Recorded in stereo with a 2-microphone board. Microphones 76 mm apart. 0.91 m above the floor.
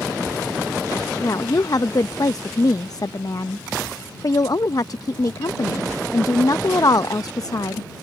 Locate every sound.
1.2 s a woman speaking: 50° left (ahead or behind)